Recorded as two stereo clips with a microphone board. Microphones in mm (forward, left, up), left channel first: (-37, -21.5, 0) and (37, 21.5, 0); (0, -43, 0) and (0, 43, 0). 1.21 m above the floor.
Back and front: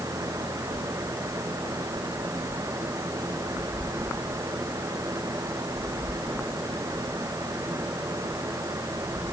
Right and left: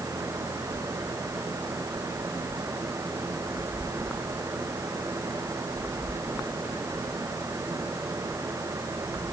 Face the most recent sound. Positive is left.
No sound to turn to.